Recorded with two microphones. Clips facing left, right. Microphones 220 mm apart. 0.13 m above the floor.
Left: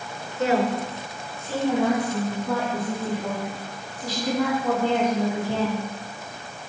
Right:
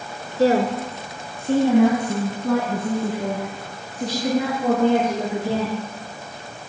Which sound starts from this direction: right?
A woman speaking, at 0.4 s.